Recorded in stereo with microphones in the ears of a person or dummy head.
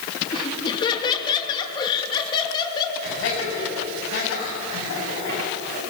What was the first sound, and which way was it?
Laughter, 25° left (ahead or behind).